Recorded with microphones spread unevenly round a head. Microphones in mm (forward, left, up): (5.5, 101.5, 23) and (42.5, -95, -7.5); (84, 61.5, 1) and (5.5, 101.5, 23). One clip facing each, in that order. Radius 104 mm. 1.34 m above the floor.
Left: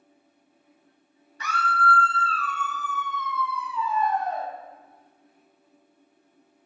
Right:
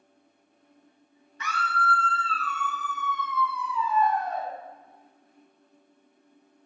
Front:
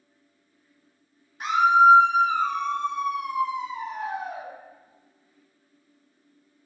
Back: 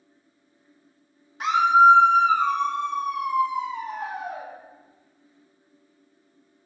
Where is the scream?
160° left, 0.8 m; by 4.5 s 115° left, 3 m.